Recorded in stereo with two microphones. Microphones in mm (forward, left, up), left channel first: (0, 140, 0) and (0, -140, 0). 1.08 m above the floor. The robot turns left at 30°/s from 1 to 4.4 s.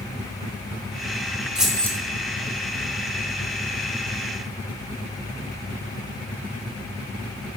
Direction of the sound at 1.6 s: 5° right (ahead or behind).